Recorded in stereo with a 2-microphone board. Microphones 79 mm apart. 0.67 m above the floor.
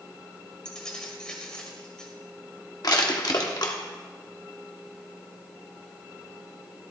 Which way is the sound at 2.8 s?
60° left (ahead or behind).